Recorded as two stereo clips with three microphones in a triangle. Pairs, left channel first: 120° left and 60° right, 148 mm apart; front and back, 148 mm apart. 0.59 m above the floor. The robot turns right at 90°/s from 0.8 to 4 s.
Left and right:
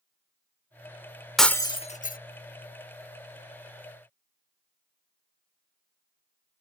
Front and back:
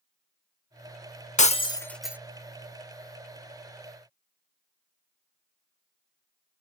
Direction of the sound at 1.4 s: 30° left.